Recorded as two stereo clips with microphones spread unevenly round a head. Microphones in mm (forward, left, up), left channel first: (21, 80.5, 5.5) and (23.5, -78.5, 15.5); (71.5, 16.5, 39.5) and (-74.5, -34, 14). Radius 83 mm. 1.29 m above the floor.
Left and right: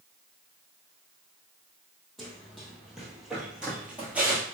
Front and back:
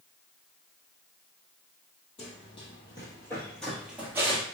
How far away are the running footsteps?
About 1.8 m.